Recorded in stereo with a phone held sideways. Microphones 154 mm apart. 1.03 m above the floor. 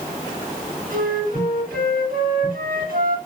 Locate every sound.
0.9 s a flute: 70° right (ahead or behind), 8.5 m